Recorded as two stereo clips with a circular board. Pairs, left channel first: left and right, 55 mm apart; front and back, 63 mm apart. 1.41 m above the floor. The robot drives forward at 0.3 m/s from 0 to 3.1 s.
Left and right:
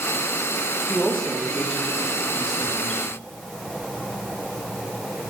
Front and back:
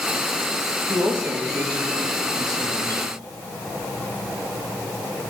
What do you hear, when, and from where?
0.9 s a woman speaking: 170° left, 2 m